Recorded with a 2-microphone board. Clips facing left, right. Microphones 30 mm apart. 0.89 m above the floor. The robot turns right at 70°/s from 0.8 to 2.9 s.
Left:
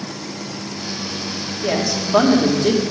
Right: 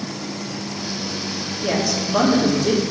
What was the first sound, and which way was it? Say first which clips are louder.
A woman speaking: left 1 dB; 5° left.